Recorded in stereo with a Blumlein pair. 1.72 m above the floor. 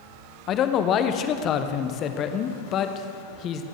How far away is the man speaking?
About 1.1 m.